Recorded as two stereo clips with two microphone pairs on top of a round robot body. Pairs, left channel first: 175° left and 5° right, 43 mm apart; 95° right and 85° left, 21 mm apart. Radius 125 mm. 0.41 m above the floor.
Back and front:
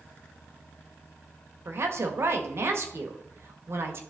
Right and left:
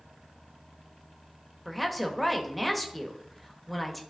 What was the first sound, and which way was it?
A woman speaking, 10° right.